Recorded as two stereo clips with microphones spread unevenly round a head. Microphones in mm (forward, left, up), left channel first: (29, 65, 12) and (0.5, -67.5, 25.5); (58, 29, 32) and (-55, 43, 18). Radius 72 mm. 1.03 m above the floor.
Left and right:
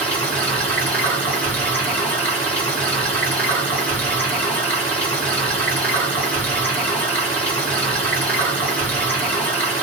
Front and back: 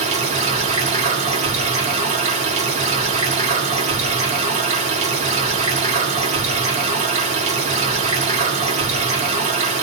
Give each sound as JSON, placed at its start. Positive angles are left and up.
{"t": 0.0, "sound": "running water", "azimuth_deg": 155, "distance_m": 1.2}